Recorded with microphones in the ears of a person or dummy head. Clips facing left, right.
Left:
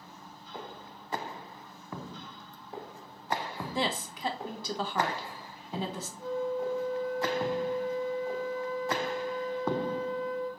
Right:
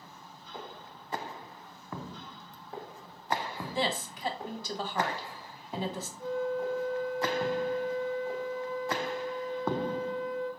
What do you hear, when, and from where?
3.8 s a woman speaking: 75° left (ahead or behind), 0.8 m
6.2 s a flute: 10° left (ahead or behind), 1.8 m